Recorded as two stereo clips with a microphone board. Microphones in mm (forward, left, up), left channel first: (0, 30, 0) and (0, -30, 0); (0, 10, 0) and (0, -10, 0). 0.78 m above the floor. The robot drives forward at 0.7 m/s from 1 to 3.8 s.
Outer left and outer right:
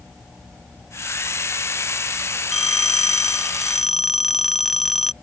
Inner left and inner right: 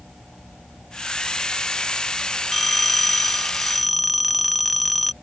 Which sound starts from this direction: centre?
A phone ringing, at 2.5 s.